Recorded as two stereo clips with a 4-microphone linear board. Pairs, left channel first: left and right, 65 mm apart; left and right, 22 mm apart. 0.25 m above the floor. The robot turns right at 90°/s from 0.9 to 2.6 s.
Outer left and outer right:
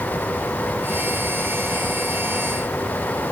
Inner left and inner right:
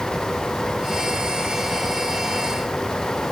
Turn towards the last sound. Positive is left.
No sound to turn to.